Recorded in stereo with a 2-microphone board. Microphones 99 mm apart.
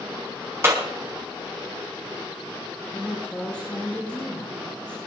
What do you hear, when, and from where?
0.6 s a clap: 25° right (ahead or behind), 3.5 m
2.9 s a woman speaking: 15° left (ahead or behind), 4 m